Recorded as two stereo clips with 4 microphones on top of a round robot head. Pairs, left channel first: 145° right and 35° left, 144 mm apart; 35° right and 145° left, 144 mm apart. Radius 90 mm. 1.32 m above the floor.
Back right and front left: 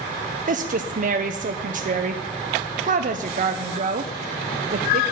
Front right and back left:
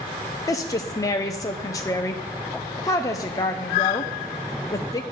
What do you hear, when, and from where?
0.5 s a woman speaking: 30° left, 0.5 m